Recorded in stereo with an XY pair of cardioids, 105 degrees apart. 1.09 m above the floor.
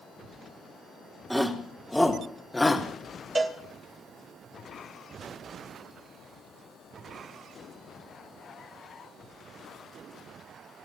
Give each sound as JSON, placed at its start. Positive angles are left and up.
{"t": 1.3, "sound": "a shout", "azimuth_deg": 0, "distance_m": 3.0}
{"t": 3.4, "sound": "a cowbell", "azimuth_deg": -25, "distance_m": 3.0}